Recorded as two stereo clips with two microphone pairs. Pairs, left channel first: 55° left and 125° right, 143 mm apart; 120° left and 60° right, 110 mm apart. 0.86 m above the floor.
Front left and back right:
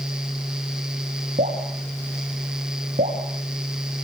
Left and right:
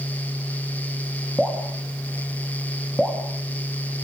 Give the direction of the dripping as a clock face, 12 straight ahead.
5 o'clock.